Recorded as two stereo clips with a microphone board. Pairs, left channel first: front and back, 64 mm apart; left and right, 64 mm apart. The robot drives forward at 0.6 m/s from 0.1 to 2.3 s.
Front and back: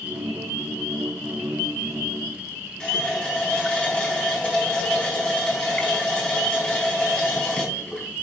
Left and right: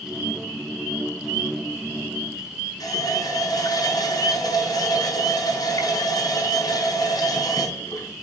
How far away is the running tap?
About 4 m.